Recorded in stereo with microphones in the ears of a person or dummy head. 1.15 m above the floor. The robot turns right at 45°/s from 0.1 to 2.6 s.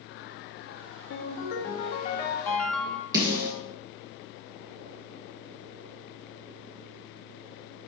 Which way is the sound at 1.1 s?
100° left.